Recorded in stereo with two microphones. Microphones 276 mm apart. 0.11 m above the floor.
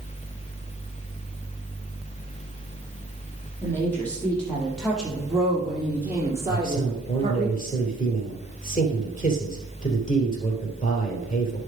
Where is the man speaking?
30° left (ahead or behind), 2.5 m.